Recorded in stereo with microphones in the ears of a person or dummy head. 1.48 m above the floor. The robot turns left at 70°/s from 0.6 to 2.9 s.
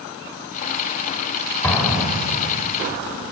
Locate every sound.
1.6 s an explosion: 20° left, 2 m; by 2.5 s 40° right, 2 m